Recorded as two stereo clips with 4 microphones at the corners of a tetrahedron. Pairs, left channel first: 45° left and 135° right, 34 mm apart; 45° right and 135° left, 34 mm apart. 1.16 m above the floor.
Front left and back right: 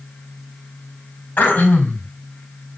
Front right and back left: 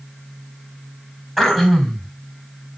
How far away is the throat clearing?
About 4.5 m.